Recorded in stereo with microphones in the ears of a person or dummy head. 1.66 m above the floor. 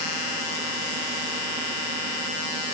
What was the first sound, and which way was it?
Only background noise.